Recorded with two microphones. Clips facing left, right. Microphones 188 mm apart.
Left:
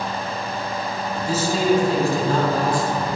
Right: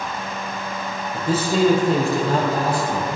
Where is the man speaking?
60° right (ahead or behind), 4.5 m; by 3.2 s 75° right (ahead or behind), 6.5 m.